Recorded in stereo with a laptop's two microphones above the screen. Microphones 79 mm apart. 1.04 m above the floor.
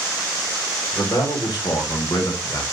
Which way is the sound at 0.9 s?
60° left (ahead or behind).